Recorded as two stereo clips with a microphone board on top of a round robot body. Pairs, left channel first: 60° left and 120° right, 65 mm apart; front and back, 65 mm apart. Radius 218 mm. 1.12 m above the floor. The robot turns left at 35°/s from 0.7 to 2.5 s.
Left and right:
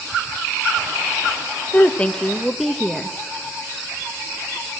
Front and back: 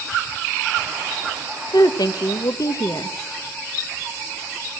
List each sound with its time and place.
1.7 s a woman speaking: 5° right, 1.2 m; by 3.2 s 30° right, 1.2 m